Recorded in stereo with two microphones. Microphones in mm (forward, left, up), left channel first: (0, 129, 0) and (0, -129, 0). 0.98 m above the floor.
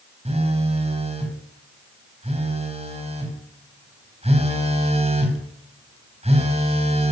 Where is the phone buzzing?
25° right (ahead or behind), 3.5 m.